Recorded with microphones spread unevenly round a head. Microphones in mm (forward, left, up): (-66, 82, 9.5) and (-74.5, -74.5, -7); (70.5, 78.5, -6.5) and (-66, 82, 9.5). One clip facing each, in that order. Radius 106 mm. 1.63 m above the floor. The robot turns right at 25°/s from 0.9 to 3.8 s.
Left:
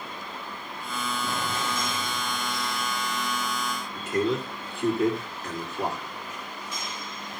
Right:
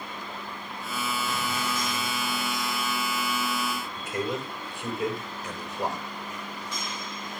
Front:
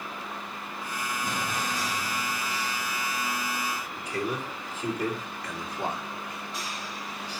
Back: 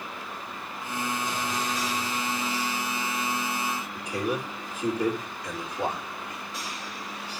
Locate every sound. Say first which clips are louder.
1.2 s an explosion: even, back 1 dB; 25° left, 3.5 m; by 3.4 s 80° left, 3.5 m
4.0 s a man speaking: left 7 dB, back 2 dB; 100° left, 3.5 m